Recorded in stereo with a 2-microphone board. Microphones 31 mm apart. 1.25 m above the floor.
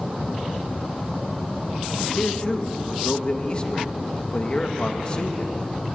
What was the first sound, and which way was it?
A man speaking, 30° left (ahead or behind).